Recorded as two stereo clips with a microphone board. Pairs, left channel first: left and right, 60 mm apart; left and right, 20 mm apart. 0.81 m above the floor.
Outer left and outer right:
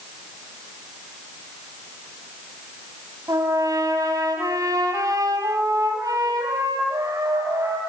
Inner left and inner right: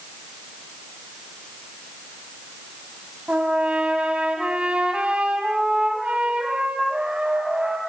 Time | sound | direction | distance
3.3 | a trumpet | 75° right (ahead or behind) | 6 m